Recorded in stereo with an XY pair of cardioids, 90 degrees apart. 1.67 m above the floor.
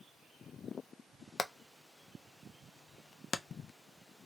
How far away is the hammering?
About 0.6 m.